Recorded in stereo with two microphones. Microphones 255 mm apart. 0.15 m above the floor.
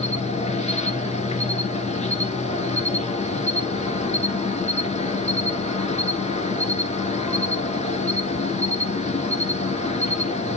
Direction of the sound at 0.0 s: 25° left (ahead or behind).